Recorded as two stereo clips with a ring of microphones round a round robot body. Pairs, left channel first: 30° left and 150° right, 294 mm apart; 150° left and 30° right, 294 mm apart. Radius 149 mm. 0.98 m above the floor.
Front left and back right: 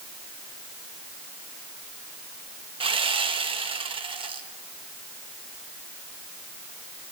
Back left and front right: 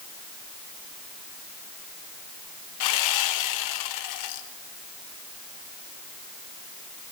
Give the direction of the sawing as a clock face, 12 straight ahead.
7 o'clock.